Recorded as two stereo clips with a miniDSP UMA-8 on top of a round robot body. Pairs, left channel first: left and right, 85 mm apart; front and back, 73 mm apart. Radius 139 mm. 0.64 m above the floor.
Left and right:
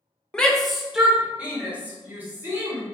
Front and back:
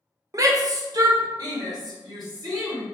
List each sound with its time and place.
0.3 s a shout: 165° left, 0.7 m; by 2.9 s 155° right, 1.7 m